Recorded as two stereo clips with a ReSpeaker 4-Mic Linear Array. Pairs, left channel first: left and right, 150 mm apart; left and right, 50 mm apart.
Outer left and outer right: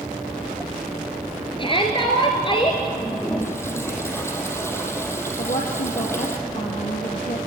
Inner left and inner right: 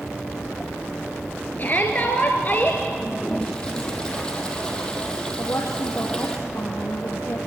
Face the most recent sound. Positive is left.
turn(degrees=65)  # may be behind; listen again after turning